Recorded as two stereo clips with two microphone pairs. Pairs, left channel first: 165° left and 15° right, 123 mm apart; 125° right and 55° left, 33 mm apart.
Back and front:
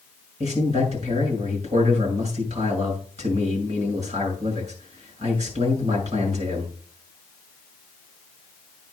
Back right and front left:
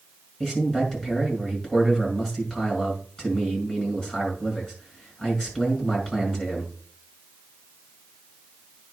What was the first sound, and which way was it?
A man speaking, 45° right.